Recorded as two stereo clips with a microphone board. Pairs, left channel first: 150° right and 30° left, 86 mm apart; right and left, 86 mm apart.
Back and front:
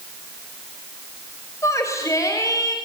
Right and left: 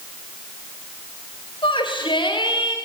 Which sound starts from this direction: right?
A shout, at 1.6 s.